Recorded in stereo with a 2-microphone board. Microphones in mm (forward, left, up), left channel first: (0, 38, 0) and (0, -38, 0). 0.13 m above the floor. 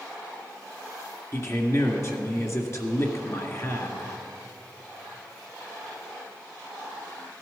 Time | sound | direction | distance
1.3 | a man speaking | 40° left (ahead or behind) | 1.9 m